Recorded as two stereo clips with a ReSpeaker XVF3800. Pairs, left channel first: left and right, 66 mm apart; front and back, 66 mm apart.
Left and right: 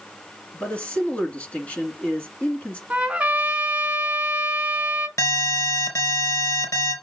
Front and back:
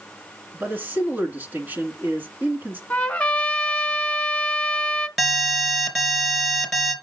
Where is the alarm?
95° left, 3 m.